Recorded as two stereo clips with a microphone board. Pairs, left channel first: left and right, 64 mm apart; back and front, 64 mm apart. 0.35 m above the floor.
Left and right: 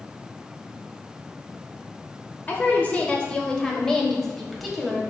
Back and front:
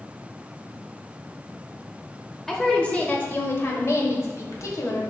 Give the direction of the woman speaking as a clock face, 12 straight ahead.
9 o'clock.